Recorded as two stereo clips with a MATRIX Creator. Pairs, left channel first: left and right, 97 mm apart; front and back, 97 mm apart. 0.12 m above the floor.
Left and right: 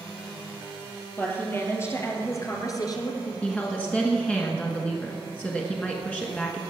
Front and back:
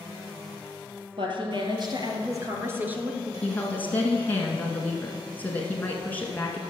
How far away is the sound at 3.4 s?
About 1.6 m.